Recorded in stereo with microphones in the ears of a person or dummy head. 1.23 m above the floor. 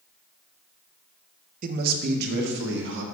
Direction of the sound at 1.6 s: 45° right (ahead or behind).